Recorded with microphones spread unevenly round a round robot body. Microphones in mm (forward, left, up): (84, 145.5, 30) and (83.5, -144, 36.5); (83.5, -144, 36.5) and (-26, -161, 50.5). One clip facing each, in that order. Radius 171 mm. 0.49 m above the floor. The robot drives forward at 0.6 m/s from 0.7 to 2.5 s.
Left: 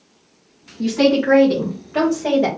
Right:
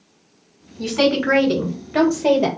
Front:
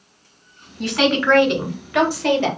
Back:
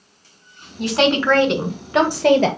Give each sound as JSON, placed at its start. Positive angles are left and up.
{"t": 0.8, "sound": "a woman speaking", "azimuth_deg": -110, "distance_m": 2.0}